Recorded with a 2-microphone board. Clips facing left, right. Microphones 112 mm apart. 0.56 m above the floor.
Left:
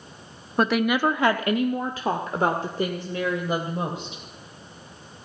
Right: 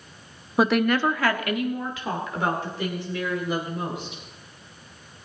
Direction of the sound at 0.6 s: 5° right (ahead or behind).